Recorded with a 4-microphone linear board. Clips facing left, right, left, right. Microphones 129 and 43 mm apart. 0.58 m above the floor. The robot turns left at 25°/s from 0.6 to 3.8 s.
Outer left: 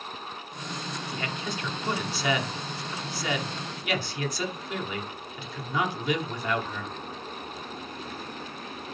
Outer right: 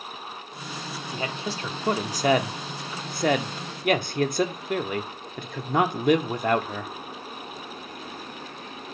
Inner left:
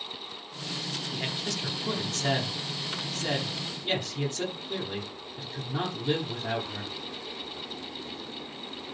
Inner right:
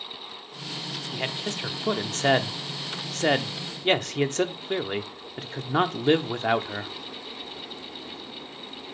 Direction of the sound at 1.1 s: 25° right (ahead or behind).